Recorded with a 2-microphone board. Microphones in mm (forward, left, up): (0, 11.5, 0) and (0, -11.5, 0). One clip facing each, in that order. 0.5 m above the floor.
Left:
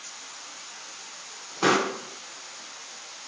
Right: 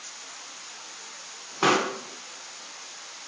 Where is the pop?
10° right (ahead or behind), 1.0 m.